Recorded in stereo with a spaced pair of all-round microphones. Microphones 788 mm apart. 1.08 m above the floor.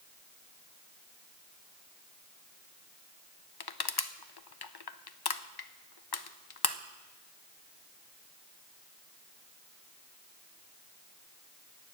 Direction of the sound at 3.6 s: 30° left (ahead or behind).